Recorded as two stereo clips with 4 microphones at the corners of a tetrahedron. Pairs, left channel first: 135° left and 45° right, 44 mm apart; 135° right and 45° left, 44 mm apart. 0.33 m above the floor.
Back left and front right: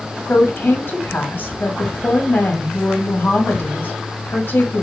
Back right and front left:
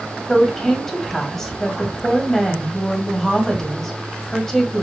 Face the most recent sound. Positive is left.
turn(degrees=145)